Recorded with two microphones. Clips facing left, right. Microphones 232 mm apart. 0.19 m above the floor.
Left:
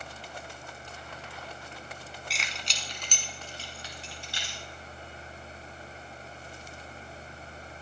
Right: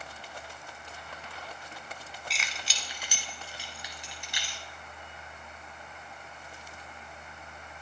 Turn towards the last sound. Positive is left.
turn(degrees=-20)  # may be behind; listen again after turning